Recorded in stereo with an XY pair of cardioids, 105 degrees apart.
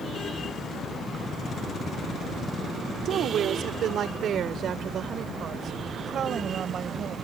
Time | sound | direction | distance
3.0 | a woman speaking | 70° right | ?